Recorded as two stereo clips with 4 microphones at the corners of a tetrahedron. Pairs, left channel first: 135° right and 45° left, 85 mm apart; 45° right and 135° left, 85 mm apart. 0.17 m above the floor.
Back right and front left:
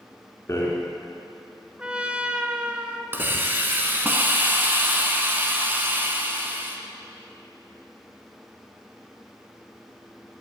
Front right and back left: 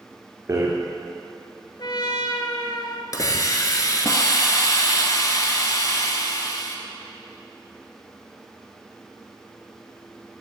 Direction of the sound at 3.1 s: 15° right.